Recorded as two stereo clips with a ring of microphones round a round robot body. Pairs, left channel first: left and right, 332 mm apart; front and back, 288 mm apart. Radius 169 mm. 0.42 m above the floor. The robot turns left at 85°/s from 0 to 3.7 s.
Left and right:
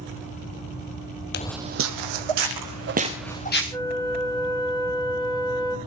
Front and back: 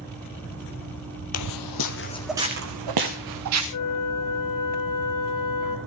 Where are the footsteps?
35° left, 0.9 m; by 3.6 s 145° left, 4 m.